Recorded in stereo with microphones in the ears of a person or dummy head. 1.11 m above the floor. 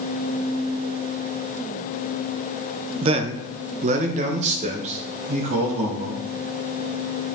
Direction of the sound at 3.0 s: 30° right (ahead or behind).